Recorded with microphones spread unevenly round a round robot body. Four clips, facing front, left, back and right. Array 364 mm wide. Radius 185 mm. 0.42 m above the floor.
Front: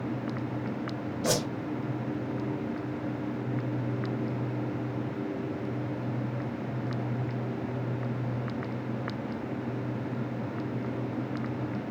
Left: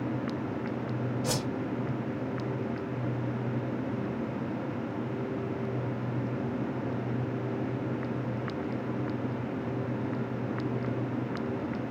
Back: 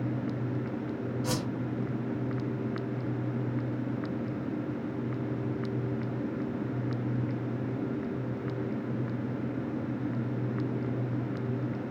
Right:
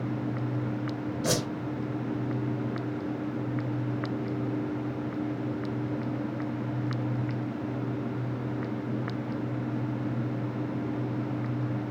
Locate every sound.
1.2 s a whoosh: 30° right, 2.5 m